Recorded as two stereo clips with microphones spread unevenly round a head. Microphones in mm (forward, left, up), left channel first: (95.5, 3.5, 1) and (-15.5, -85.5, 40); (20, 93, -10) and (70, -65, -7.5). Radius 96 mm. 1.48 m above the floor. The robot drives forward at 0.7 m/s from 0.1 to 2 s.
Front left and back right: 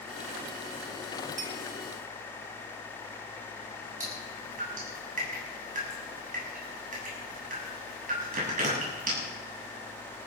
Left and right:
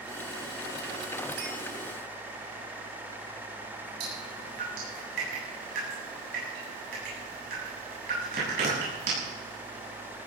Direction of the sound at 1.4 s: 115° right.